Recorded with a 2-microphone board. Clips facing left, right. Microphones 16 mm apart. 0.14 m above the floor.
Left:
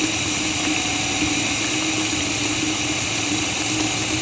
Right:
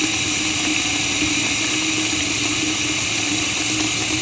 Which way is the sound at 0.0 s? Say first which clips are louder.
Right 2 dB; 10° right (ahead or behind).